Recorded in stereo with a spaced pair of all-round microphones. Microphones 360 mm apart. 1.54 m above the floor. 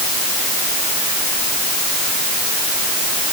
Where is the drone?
No drone in this recording.